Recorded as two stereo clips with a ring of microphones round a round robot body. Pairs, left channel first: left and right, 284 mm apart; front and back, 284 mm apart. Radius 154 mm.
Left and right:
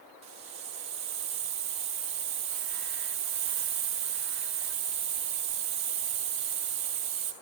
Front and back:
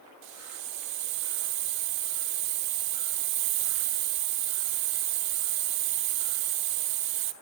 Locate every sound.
0.2 s a hiss: 165° right, 1.2 m